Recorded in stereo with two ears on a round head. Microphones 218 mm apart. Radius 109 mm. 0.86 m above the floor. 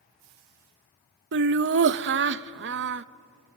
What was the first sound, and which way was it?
Laughter, 50° right (ahead or behind).